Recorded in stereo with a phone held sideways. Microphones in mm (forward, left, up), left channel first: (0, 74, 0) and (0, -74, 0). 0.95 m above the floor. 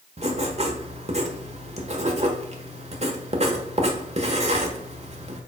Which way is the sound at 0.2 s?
50° right (ahead or behind).